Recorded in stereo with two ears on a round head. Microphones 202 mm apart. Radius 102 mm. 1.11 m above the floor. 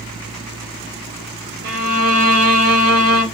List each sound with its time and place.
1.6 s a violin: 45° right (ahead or behind), 0.9 m